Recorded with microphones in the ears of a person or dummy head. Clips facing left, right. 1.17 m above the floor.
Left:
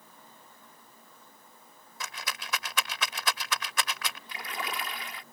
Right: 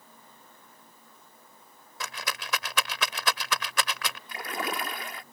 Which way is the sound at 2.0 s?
55° right (ahead or behind).